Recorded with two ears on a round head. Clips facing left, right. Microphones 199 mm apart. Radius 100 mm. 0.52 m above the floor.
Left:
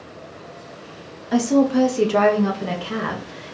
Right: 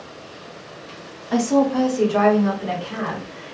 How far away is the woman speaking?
About 0.8 m.